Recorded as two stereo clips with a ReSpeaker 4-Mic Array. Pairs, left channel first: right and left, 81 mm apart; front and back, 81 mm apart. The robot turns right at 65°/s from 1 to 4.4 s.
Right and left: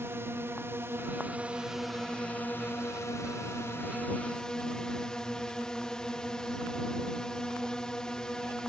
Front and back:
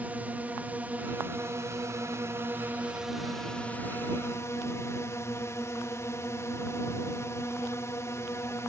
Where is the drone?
125° left; by 8.7 s 15° right.